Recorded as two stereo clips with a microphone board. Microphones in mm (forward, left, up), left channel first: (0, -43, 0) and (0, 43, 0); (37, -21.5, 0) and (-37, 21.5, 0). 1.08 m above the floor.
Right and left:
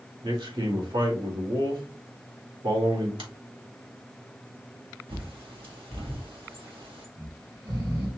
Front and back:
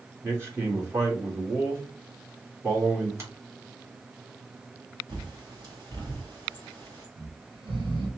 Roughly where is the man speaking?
Left.